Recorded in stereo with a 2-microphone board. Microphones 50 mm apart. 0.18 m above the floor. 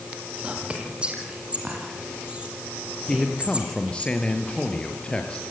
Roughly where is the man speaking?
Left.